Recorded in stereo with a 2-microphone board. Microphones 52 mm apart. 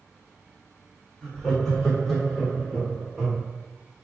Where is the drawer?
No drawer in this recording.